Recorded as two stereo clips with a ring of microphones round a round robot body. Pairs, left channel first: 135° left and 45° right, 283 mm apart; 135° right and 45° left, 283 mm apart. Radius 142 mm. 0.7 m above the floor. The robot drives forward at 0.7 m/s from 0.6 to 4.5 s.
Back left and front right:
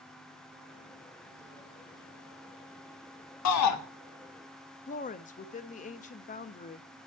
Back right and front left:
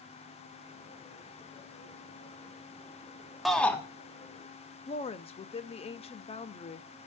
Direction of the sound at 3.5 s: 135° left.